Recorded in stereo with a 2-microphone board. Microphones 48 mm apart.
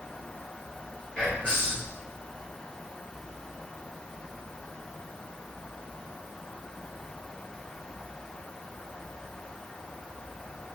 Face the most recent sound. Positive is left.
turn(degrees=20)  # may be behind; listen again after turning